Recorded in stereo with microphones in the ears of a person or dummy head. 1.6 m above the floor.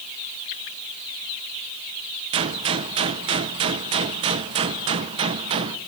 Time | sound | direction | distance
2.3 | a gunshot | 30° right (ahead or behind) | 0.8 m